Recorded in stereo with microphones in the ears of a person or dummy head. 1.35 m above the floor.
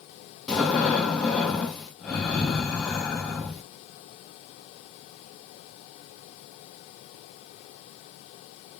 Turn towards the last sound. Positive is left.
turn(degrees=5)  # may be behind; listen again after turning